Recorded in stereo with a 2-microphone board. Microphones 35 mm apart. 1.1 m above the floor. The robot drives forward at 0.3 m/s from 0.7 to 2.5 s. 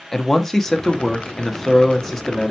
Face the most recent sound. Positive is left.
turn(degrees=5)  # may be behind; listen again after turning